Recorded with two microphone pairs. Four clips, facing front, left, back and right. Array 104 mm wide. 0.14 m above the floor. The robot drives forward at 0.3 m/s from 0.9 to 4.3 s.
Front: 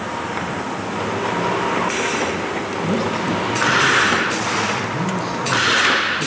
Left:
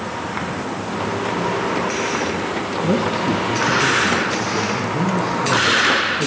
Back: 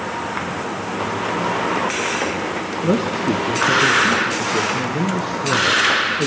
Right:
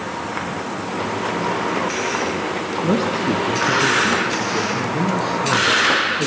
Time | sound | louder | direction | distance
2.8 | a man speaking | even, back 3 dB | 175° right | 1.2 m